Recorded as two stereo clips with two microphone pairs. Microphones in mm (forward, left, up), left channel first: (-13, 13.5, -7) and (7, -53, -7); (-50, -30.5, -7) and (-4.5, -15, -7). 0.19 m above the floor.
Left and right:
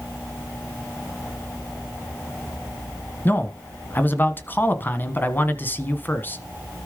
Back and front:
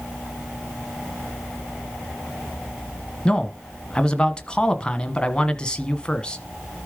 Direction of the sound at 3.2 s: 145° left.